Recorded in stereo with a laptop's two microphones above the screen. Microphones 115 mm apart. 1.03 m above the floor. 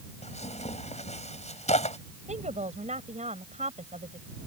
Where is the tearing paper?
75° left (ahead or behind).